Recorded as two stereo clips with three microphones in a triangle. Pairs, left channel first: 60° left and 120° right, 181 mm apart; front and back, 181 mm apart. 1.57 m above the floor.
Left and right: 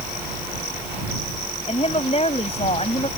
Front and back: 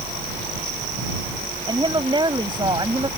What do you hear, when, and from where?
1.7 s a woman speaking: 115° left